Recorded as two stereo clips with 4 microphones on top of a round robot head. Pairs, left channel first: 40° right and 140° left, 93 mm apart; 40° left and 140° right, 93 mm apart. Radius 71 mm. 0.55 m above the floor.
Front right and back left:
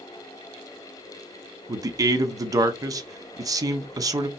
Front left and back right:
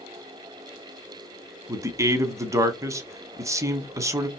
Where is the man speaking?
175° left, 1.0 m.